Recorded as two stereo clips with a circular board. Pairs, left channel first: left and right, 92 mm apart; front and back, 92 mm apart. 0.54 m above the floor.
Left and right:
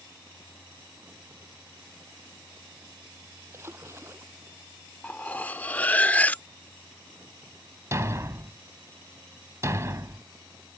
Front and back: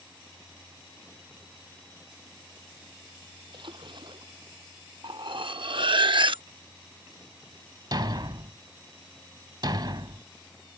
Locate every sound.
3.5 s a splash: 150° right
5.0 s cutlery clinking: 160° left
7.9 s a thud: 145° right